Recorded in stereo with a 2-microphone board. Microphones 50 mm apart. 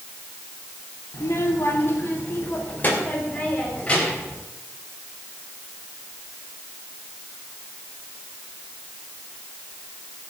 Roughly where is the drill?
I don't hear a drill.